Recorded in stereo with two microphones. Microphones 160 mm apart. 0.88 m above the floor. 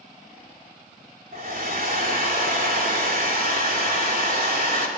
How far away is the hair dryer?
About 3 m.